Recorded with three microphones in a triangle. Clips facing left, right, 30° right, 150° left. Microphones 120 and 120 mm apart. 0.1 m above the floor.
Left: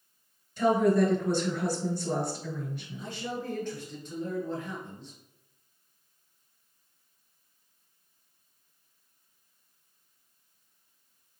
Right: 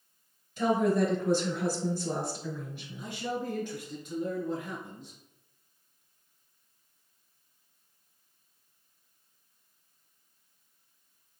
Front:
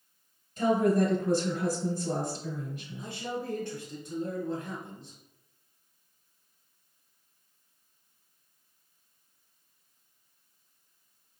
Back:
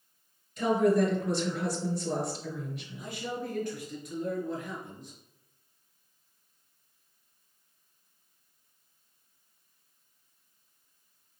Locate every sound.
0.6 s a woman speaking: 15° right, 1.7 m
3.0 s a man speaking: 20° right, 1.9 m